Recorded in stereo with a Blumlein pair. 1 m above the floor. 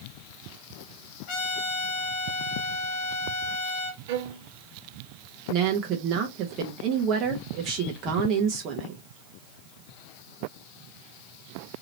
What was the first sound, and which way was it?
A trumpet, 45° left.